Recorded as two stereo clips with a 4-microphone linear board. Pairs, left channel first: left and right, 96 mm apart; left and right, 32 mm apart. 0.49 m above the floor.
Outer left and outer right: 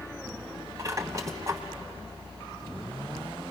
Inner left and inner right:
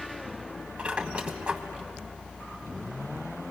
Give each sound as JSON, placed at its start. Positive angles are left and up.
{"t": 0.8, "sound": "a squeak", "side_deg": -35, "distance_m": 1.4}